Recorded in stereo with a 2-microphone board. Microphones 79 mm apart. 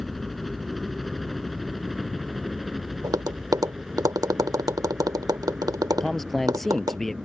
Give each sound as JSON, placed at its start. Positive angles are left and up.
{"t": 0.0, "sound": "a helicopter", "side_deg": 0}
{"t": 3.0, "sound": "tapping", "side_deg": -55}
{"t": 6.0, "sound": "a man speaking", "side_deg": 5}